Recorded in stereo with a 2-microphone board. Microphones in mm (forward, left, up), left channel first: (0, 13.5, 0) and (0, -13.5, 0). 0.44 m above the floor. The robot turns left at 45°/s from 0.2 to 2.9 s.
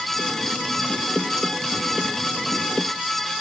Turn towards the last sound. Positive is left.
No sound to turn to.